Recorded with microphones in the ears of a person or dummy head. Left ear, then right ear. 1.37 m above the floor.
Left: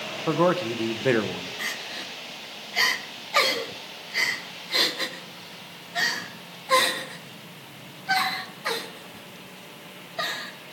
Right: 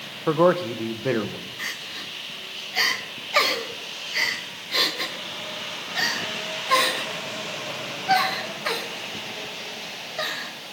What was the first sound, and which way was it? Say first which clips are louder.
A man speaking: right 3 dB; 15° right (ahead or behind).